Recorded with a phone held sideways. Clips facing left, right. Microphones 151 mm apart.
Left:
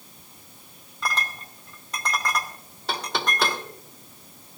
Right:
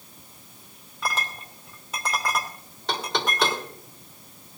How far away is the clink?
About 2.5 m.